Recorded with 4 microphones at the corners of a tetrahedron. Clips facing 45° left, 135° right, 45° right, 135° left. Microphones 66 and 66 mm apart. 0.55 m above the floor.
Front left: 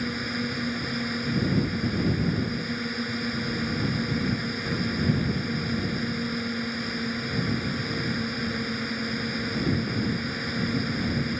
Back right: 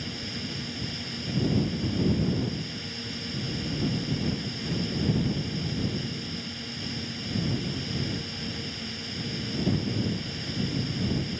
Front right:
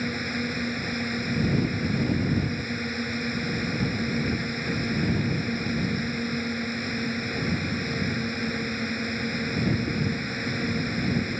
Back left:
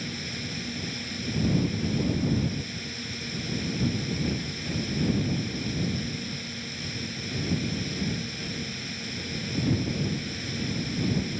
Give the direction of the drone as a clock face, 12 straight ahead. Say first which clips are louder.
Front left 7 dB, front right 7 dB; 12 o'clock.